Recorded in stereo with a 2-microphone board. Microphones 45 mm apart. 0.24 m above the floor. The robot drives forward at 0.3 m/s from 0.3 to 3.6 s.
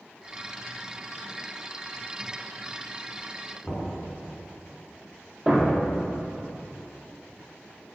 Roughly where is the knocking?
Centre.